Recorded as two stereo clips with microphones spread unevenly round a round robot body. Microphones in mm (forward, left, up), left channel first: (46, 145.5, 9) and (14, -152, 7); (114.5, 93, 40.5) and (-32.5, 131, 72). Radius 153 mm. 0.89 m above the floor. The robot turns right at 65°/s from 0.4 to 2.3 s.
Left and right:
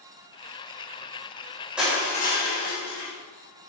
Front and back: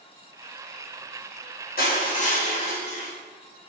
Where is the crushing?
10° right, 4.5 m; by 3.1 s 25° left, 4.5 m.